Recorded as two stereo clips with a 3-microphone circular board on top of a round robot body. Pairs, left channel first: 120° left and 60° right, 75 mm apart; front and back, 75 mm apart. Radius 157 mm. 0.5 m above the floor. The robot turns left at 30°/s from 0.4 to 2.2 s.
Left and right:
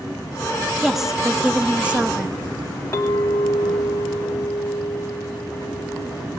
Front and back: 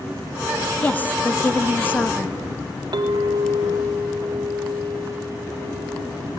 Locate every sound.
0.8 s a woman speaking: 25° left, 1.0 m; by 2.4 s 15° right, 1.0 m
2.9 s a clink: 170° left, 3 m